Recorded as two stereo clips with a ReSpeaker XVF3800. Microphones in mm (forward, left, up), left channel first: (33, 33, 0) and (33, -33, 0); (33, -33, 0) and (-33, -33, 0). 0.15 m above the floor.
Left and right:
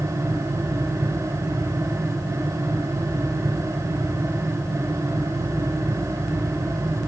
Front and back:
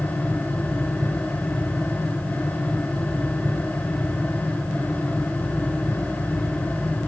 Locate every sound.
Only background noise.